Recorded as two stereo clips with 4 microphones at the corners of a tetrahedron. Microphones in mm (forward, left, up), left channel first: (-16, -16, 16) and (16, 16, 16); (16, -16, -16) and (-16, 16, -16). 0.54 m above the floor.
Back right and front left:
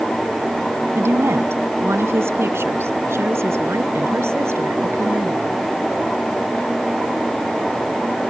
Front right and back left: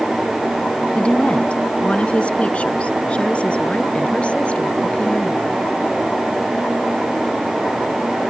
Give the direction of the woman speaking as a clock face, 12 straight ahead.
11 o'clock.